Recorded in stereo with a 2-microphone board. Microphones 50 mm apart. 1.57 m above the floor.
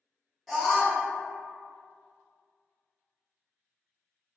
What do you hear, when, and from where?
0.5 s a scream: 5° left (ahead or behind), 1.0 m